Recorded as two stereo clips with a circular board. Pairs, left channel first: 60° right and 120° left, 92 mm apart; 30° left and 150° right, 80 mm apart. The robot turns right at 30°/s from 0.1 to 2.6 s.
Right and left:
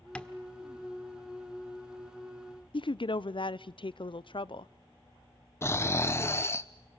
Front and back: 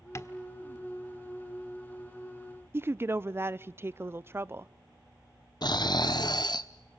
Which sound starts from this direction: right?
A woman speaking, at 2.7 s.